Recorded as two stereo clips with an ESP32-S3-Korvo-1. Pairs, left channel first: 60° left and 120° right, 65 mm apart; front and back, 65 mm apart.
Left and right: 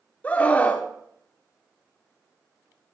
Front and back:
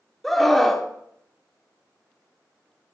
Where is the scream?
85° left, 1.4 m.